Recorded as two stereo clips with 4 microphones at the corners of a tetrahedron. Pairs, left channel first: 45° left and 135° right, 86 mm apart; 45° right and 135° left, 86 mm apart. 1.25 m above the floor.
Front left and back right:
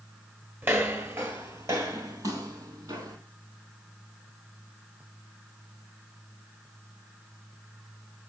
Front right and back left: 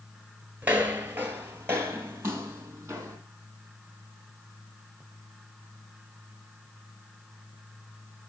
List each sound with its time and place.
0.6 s footsteps: 170° right, 1.4 m; by 3.2 s 165° right, 3 m